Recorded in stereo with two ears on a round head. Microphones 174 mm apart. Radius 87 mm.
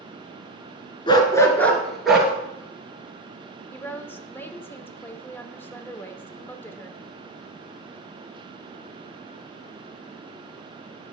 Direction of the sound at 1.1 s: 25° left (ahead or behind).